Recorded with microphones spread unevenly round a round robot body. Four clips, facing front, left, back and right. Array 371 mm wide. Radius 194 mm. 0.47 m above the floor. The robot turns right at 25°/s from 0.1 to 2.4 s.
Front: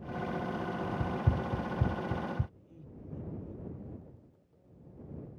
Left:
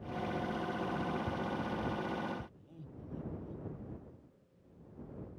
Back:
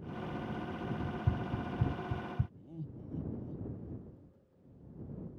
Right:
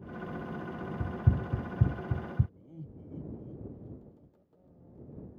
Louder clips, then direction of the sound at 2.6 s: Right 3 dB, back 4 dB; 155° right.